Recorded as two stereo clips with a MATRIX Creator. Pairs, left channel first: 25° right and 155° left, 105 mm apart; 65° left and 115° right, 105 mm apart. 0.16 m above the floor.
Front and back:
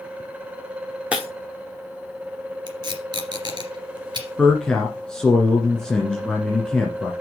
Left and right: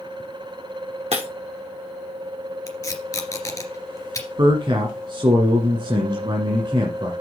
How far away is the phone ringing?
No phone ringing in this recording.